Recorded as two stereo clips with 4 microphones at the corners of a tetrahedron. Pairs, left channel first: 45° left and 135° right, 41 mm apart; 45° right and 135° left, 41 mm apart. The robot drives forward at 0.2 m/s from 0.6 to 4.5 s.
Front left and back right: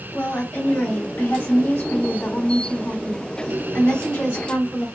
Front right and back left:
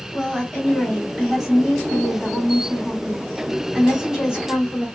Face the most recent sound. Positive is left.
turn(degrees=60)